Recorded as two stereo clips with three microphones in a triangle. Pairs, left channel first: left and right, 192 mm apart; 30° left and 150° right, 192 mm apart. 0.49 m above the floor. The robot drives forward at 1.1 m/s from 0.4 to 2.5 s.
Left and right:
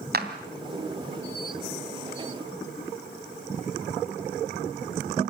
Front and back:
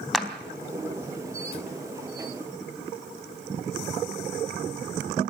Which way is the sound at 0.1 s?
60° right.